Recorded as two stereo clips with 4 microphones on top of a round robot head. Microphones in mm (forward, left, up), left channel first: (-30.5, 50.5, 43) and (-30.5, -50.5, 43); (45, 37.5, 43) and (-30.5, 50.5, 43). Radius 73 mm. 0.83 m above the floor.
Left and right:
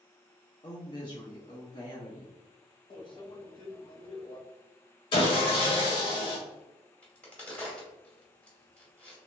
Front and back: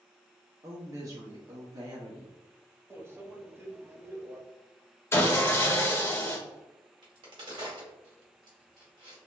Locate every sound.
0.6 s a woman speaking: 130° left, 1.0 m
2.9 s a microwave: 120° left, 0.8 m
5.1 s sawing: 50° left, 1.0 m
7.0 s a crack: 170° left, 1.7 m